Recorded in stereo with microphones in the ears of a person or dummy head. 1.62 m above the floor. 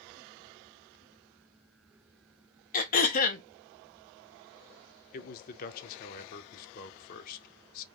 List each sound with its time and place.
2.7 s throat clearing: 50° left (ahead or behind), 0.5 m
5.1 s a man speaking: 50° left (ahead or behind), 0.5 m